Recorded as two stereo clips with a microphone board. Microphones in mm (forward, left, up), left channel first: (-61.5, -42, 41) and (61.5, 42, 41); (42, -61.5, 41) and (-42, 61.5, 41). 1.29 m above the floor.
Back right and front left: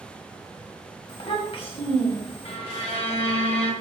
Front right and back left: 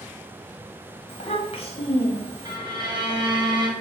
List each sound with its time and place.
1.1 s a child speaking: 100° right, 1.0 m
2.5 s a violin: straight behind, 0.7 m